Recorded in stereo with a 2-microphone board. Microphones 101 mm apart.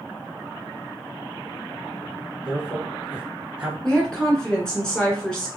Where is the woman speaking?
10° left (ahead or behind), 1.7 m.